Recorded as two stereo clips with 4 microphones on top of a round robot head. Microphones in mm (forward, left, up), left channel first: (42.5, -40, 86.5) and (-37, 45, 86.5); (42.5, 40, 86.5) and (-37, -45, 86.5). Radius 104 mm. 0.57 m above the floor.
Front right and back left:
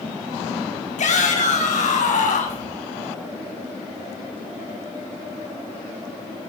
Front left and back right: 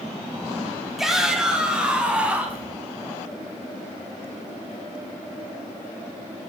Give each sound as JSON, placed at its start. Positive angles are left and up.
{"t": 1.0, "sound": "a shout", "azimuth_deg": -45, "distance_m": 4.0}